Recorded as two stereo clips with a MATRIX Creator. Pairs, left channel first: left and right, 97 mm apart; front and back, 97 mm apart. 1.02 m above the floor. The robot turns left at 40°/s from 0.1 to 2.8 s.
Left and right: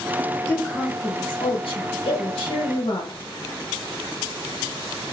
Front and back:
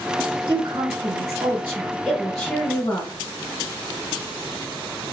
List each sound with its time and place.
0.5 s a woman speaking: 160° left, 0.8 m; by 3.2 s 65° left, 0.8 m